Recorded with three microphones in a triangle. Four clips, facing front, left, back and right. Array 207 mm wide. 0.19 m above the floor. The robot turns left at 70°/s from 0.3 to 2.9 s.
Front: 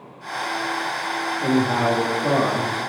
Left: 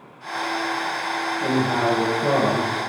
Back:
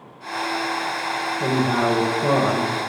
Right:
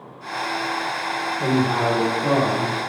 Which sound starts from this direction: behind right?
A man speaking, at 1.4 s.